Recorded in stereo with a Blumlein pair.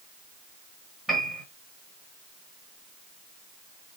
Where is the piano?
5° right, 1.7 m.